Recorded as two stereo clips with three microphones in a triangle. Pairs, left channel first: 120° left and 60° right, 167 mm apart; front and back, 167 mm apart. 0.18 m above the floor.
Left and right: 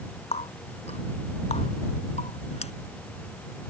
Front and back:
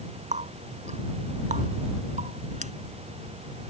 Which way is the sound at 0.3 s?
155° left.